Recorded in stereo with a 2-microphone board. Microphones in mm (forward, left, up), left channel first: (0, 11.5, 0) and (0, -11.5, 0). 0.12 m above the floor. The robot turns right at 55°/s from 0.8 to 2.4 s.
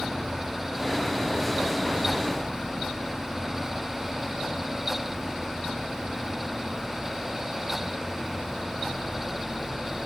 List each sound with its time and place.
Only background noise.